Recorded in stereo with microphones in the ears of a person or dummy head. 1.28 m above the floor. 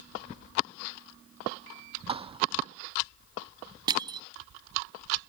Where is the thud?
30° right (ahead or behind).